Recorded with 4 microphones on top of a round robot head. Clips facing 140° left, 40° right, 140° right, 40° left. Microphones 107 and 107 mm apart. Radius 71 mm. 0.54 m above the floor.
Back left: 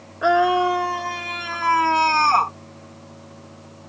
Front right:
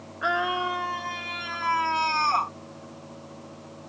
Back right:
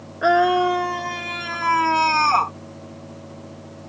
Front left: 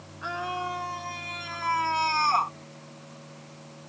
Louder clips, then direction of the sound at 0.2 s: Back left 10 dB, back right 16 dB; 165° right.